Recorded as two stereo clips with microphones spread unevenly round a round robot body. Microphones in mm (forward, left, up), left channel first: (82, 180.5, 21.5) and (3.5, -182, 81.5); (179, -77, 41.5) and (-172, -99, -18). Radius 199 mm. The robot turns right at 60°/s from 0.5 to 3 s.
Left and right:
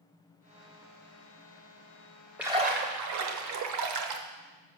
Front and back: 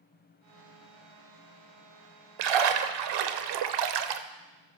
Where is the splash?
170° left, 0.6 m; by 4.2 s 155° right, 0.6 m.